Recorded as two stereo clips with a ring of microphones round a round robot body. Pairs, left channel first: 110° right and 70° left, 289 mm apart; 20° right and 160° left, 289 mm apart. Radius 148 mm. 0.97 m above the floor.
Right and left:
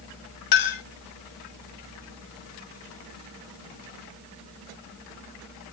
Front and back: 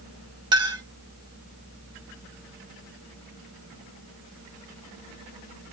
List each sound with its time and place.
0.5 s a clink: 125° right, 1.1 m